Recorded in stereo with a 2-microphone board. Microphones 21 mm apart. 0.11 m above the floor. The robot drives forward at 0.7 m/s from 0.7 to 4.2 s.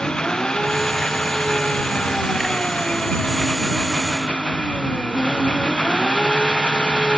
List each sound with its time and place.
0.0 s an engine running: 30° left (ahead or behind); by 7.2 s 40° left (ahead or behind)